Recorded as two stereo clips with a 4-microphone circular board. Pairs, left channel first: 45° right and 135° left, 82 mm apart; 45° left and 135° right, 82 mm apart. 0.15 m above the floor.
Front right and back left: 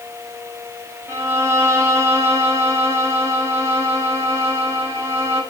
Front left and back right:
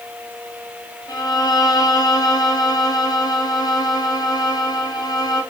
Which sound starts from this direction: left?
A violin, at 1.1 s.